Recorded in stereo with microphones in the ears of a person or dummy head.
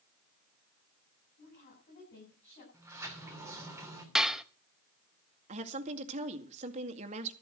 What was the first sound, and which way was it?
A woman speaking, 40° left (ahead or behind).